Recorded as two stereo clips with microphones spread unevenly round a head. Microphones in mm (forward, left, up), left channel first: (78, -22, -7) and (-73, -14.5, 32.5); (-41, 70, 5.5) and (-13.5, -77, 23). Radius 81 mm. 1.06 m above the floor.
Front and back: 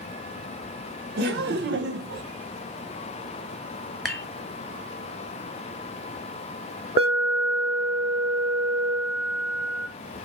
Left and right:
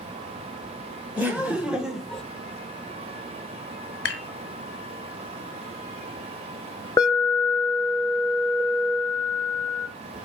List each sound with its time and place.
1.2 s laughter: 160° right, 1.4 m; by 2.2 s straight behind, 0.6 m
4.0 s dishes clattering: 90° left, 1.0 m
7.0 s an alarm: 130° left, 1.0 m